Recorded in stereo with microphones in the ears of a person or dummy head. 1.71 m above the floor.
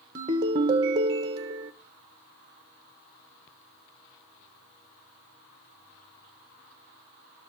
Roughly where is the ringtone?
Centre.